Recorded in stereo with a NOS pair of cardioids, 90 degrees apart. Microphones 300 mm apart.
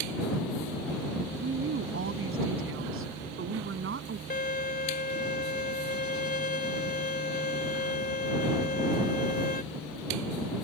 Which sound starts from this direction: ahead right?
A woman speaking, at 1.4 s.